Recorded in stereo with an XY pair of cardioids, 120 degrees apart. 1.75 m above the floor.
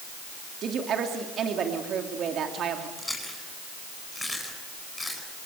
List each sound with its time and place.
0.6 s a woman speaking: 55° right, 3 m
3.0 s chewing: 5° left, 9.5 m